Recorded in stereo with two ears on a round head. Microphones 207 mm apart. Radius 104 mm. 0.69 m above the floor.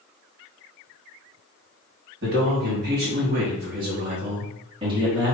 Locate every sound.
2.2 s a man speaking: 45° right (ahead or behind), 1.9 m; by 5.3 s 15° right (ahead or behind), 1.6 m